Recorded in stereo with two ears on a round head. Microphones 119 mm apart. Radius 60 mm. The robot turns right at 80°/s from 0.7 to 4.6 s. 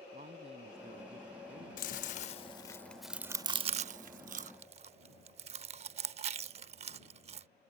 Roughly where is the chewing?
Left.